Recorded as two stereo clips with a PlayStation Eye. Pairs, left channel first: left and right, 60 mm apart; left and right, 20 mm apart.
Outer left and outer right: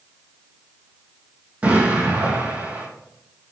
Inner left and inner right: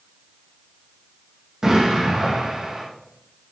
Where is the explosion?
25° right (ahead or behind), 4 m.